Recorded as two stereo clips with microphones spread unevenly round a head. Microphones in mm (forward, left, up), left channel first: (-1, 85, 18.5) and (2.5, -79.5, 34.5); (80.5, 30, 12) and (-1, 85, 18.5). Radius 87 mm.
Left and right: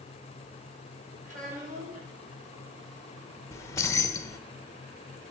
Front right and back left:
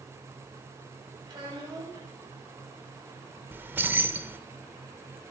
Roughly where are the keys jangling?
Behind left.